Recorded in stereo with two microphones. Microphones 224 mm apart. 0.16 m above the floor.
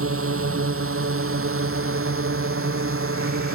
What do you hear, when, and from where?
0.0 s a drone: 75° right (ahead or behind); by 3.5 s 70° right (ahead or behind)